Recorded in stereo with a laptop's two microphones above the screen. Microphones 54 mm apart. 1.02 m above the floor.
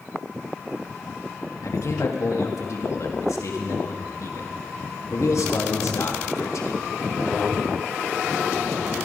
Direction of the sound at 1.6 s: 70° left (ahead or behind).